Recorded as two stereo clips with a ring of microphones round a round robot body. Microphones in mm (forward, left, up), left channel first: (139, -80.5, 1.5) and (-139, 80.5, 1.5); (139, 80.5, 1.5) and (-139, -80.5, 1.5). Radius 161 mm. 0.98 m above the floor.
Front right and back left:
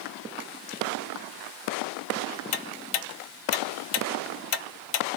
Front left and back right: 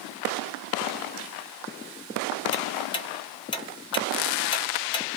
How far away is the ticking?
About 0.6 m.